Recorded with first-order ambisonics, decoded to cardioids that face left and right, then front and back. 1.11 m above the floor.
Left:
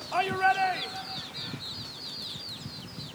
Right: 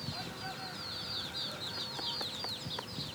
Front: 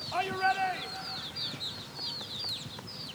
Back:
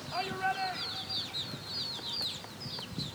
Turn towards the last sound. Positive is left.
turn(degrees=70)